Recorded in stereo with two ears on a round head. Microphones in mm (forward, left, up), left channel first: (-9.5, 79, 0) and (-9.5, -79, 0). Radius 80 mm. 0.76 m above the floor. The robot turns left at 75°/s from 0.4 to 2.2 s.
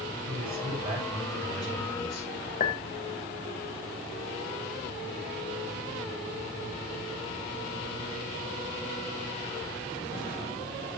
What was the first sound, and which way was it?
A man speaking, 110° right.